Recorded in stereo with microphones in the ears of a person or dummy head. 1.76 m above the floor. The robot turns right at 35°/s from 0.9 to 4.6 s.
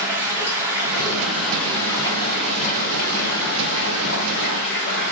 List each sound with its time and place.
0.0 s running water: 15° right, 0.8 m; by 5.1 s 115° left, 0.8 m